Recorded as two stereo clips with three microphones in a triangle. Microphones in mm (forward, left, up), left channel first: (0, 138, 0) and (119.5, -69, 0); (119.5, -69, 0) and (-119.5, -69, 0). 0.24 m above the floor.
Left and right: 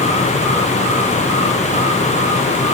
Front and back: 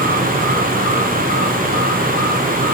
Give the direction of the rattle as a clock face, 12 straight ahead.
I don't hear a rattle.